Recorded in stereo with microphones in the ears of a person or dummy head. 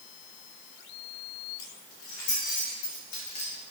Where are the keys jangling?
75° left (ahead or behind), 2.5 m; by 3.5 s 60° left (ahead or behind), 2.5 m.